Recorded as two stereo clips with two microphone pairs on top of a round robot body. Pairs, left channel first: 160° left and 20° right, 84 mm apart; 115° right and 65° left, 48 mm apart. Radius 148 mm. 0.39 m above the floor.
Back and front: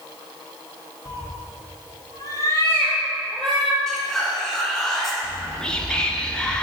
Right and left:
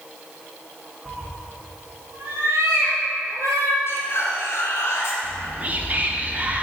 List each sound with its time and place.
1.1 s a cat meowing: 140° left, 1.7 m; by 3.8 s 70° left, 1.9 m
3.9 s whispering: 125° right, 2 m
5.2 s whispering: 95° left, 1.1 m